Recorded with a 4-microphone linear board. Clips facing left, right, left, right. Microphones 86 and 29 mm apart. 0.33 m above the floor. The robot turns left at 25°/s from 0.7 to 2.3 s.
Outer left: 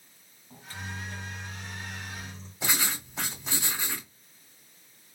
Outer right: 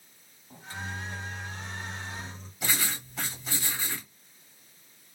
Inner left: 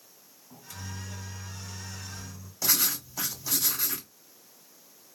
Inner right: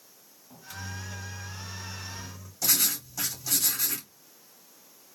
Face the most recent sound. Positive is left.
turn(degrees=20)  # may be behind; listen again after turning